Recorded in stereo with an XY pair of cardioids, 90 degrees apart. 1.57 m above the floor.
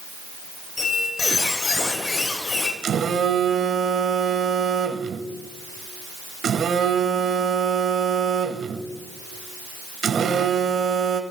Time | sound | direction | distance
0.8 | a squeak | 40° left | 3.5 m
2.8 | a phone buzzing | 65° right | 1.6 m